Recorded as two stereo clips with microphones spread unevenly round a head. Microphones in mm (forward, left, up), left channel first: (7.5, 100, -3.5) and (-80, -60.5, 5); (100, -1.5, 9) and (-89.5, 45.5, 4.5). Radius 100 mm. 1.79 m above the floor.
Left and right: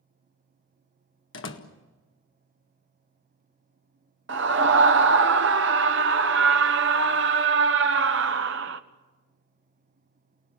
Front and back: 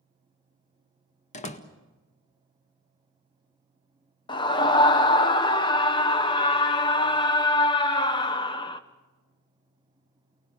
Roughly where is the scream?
Right.